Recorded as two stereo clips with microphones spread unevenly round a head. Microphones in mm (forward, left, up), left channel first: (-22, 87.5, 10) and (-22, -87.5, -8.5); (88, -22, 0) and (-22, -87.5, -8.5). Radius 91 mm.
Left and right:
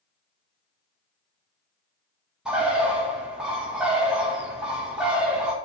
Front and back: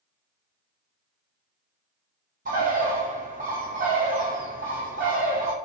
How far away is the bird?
About 1.5 m.